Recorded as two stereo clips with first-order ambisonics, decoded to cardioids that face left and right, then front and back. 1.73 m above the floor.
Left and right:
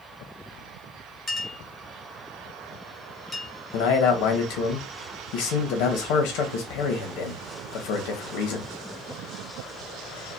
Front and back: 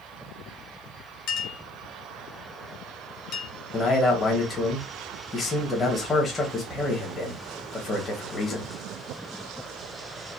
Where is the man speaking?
75° left, 1.9 m.